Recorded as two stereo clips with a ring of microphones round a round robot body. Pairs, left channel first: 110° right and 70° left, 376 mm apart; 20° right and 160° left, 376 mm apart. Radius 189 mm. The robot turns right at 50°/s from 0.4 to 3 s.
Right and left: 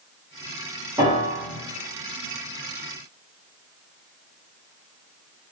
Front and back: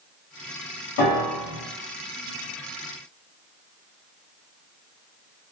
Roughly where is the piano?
Ahead.